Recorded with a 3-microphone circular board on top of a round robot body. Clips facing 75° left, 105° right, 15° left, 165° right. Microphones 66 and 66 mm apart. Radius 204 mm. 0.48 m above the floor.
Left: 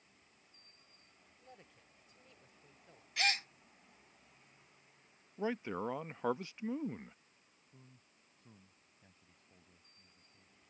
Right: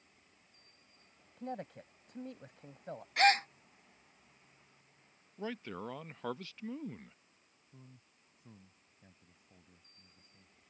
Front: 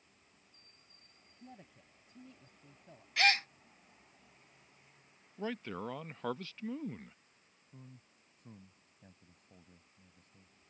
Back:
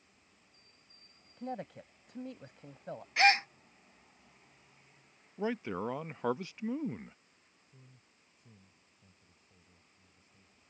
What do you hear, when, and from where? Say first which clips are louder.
1.4 s a man speaking: right 18 dB, back 15 dB; 140° right
3.2 s a gasp: right 9 dB, back 4 dB; 110° right
5.4 s a man speaking: left 4 dB, back 5 dB; 130° left
7.7 s a man speaking: right 4 dB, front 7 dB; 25° right